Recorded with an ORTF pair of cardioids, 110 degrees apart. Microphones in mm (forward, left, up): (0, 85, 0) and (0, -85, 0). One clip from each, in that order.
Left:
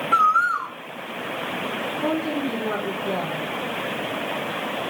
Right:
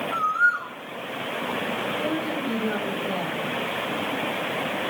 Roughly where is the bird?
Ahead left.